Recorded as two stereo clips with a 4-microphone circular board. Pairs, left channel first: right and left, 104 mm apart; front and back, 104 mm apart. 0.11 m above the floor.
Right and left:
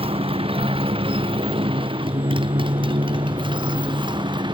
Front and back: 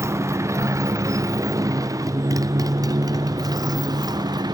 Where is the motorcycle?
115° left; by 4.5 s 130° left.